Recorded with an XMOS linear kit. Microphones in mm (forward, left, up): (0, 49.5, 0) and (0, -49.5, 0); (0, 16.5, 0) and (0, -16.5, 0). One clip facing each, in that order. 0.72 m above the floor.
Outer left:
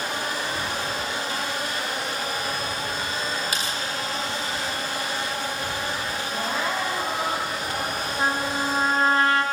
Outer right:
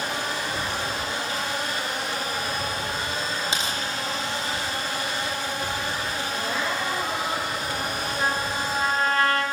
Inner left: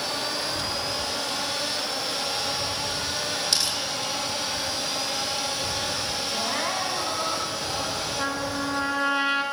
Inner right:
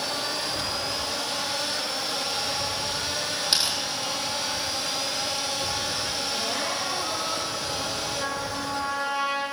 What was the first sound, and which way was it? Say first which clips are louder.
Tearing paper: outer right 1 dB, inner right 2 dB; 25° right (ahead or behind).